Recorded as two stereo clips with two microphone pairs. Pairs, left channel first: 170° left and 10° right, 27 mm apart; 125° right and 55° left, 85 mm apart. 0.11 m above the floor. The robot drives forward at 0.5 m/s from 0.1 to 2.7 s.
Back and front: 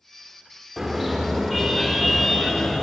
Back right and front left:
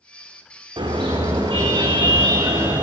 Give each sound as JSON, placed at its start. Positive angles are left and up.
{"t": 0.8, "sound": "a car horn", "azimuth_deg": 85, "distance_m": 5.0}